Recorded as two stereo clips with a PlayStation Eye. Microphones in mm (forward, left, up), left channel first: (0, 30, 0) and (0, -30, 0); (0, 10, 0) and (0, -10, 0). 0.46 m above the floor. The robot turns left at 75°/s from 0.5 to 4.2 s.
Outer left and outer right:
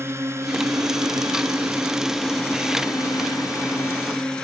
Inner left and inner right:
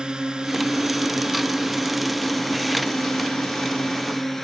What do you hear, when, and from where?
0.0 s a drone: 45° right (ahead or behind); by 4.4 s 15° left (ahead or behind)